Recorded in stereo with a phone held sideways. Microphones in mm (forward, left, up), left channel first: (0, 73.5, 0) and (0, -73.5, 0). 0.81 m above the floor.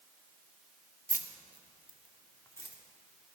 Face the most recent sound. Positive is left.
turn(degrees=20)  # may be behind; listen again after turning